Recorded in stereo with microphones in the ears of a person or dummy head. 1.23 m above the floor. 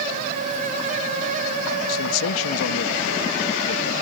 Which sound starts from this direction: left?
A man speaking, at 1.9 s.